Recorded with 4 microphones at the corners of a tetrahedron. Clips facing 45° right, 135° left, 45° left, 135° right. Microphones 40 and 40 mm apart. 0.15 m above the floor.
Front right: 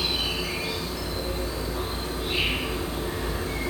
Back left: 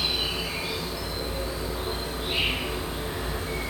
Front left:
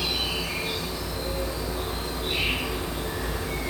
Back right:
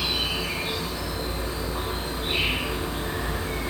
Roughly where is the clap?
I don't hear a clap.